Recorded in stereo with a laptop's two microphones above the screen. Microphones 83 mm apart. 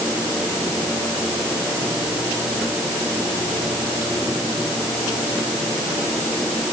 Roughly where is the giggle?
I don't hear a giggle.